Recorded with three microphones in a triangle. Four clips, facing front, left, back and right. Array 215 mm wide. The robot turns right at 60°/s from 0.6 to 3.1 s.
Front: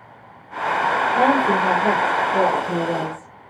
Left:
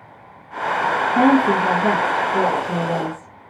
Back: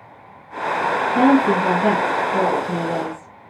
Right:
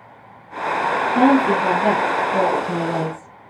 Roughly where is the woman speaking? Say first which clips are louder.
Even, back 4 dB; behind right.